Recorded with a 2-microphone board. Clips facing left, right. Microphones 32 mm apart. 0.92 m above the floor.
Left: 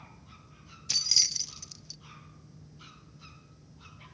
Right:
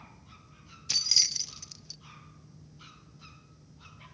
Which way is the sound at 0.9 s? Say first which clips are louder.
Even; 5° right (ahead or behind).